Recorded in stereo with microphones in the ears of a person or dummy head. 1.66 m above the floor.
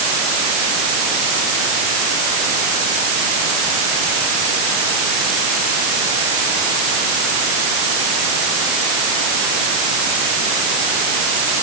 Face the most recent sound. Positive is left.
No sound to turn to.